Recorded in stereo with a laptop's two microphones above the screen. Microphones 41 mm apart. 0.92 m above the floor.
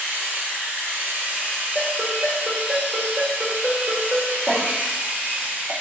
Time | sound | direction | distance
0.0 | a machine running | 50° right (ahead or behind) | 0.7 m
1.8 | a ringtone | 50° right (ahead or behind) | 1.3 m
4.5 | a cough | 30° right (ahead or behind) | 1.3 m